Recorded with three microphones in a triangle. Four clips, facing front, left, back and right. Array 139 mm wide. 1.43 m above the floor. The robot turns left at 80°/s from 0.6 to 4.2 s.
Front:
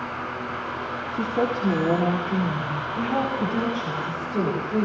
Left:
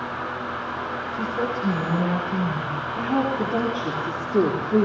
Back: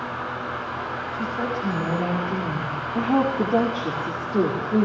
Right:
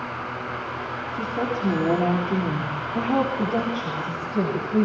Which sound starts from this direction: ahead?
A woman speaking, at 1.1 s.